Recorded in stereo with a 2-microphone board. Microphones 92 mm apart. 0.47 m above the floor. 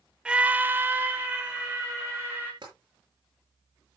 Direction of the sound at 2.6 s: 55° right (ahead or behind).